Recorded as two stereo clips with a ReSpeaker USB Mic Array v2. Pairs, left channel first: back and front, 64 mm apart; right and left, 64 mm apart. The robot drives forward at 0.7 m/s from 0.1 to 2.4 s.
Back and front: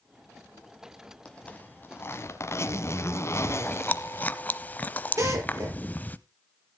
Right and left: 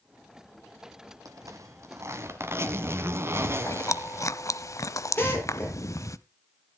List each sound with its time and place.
1.2 s a zipper: 105° left, 1.2 m; by 4.3 s 135° left, 1.6 m
3.3 s chewing: 120° right, 0.6 m
5.2 s a drill: 35° right, 7 m